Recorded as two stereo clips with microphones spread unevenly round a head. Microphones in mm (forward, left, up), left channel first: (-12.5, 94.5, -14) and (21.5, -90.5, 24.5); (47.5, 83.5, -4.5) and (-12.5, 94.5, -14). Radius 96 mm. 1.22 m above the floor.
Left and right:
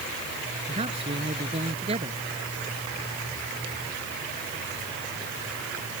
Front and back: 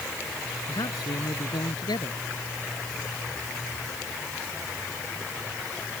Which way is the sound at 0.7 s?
20° right.